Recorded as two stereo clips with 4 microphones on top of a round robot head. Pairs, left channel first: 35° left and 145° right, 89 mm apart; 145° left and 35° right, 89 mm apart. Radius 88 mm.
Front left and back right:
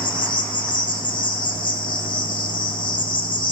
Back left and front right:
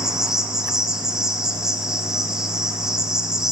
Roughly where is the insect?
Ahead left.